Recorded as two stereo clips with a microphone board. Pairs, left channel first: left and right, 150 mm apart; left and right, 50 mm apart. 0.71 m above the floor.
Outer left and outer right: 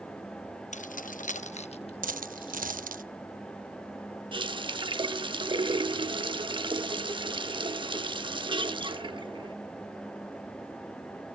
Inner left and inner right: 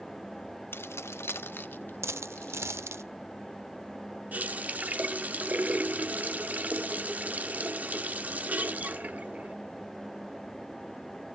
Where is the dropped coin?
60° right (ahead or behind), 0.6 m.